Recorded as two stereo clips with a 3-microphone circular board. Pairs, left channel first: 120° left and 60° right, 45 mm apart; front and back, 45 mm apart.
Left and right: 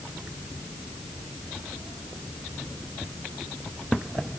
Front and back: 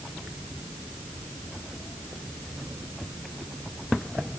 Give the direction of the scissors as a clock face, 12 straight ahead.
I don't hear scissors.